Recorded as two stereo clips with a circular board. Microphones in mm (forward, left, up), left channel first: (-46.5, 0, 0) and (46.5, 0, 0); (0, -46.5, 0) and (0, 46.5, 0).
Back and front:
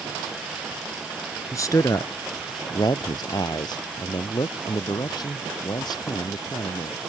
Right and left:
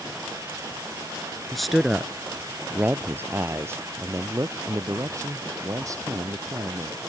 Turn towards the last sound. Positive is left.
turn(degrees=140)